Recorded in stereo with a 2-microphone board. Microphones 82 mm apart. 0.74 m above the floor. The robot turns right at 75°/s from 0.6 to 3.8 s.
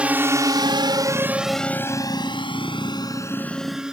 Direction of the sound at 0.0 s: 15° right (ahead or behind).